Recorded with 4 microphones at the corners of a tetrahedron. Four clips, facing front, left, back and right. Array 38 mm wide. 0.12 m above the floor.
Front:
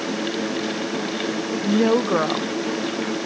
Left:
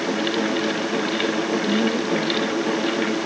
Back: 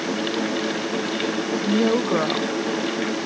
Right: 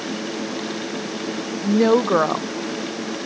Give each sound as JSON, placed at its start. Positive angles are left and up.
{"t": 1.6, "sound": "a woman speaking", "azimuth_deg": -75}